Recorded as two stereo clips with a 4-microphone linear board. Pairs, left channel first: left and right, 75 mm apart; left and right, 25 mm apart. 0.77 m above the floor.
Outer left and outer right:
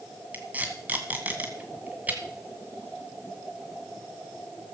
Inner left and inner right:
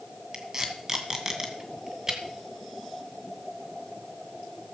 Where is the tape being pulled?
25° right (ahead or behind), 2 m.